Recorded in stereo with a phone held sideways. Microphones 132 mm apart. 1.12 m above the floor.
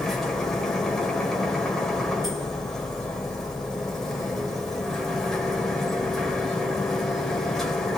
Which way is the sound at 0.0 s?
5° left (ahead or behind).